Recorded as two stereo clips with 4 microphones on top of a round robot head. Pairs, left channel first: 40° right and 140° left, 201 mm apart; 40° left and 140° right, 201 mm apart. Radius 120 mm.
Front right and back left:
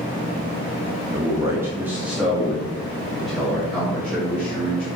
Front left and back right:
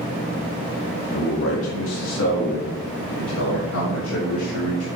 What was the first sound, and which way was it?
A man speaking, 70° left.